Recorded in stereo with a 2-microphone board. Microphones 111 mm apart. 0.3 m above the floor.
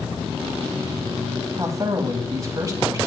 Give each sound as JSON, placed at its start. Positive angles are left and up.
{"t": 1.6, "sound": "a man speaking", "side_deg": -30, "distance_m": 1.8}